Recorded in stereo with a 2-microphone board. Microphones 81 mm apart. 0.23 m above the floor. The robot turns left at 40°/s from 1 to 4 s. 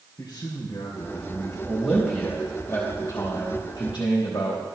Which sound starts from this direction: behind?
A man speaking, at 1.7 s.